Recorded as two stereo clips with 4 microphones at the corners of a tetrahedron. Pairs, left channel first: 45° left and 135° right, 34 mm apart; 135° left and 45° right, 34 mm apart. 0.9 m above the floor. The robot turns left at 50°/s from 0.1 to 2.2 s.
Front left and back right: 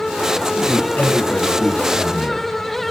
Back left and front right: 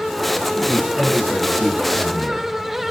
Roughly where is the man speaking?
Ahead left.